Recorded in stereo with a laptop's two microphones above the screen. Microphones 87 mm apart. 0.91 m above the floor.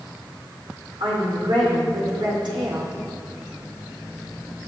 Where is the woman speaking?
75° right (ahead or behind), 3.5 m.